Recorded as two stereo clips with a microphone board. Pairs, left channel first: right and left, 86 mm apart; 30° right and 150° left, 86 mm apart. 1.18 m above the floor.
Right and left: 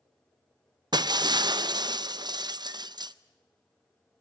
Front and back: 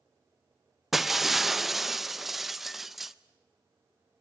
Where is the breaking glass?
60° left, 0.5 m.